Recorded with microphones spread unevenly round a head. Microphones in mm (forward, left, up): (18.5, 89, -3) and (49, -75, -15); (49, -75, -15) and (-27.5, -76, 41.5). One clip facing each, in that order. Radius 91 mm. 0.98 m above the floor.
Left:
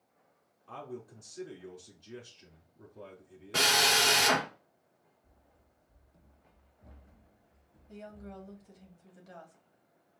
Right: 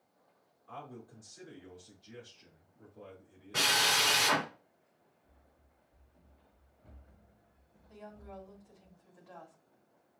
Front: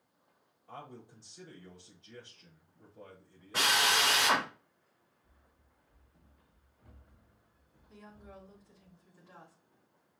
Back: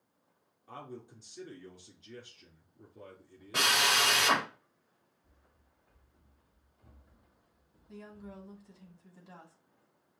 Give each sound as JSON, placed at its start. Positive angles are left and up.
{"t": 0.7, "sound": "a man speaking", "azimuth_deg": 150, "distance_m": 3.5}
{"t": 3.5, "sound": "a drill", "azimuth_deg": 135, "distance_m": 3.0}
{"t": 5.2, "sound": "running footsteps", "azimuth_deg": 145, "distance_m": 1.4}
{"t": 7.9, "sound": "a woman speaking", "azimuth_deg": 155, "distance_m": 2.0}